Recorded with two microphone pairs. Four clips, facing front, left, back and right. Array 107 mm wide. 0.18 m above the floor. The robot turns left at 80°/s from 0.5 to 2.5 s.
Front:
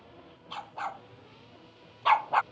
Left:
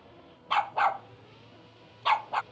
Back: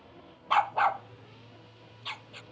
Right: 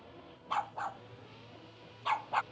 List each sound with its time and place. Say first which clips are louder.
0.5 s a dog barking: left 10 dB, back 13 dB; 155° left; by 2.4 s straight ahead